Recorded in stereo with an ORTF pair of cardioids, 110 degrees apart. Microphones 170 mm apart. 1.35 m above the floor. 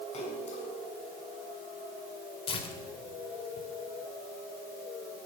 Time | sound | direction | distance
0.1 | a splash | 35° left | 6.5 m
2.5 | tearing paper | 35° left | 3 m